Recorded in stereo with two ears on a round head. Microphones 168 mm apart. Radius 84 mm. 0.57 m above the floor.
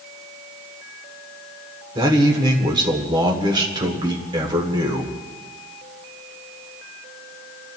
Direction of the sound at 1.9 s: 25° right (ahead or behind).